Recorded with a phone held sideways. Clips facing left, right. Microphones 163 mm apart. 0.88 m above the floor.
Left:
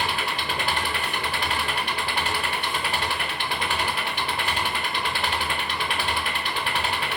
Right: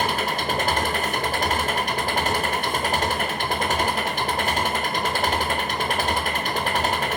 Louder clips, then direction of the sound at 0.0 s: Right 4 dB; 40° right (ahead or behind).